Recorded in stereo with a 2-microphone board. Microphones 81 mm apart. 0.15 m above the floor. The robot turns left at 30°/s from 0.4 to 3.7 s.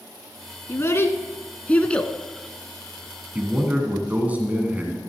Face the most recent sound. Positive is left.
turn(degrees=-20)  # may be behind; listen again after turning